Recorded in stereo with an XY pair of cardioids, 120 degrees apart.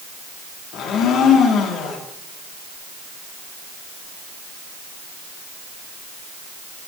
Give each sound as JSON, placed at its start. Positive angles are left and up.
{"t": 0.7, "sound": "a blender", "azimuth_deg": 70, "distance_m": 1.9}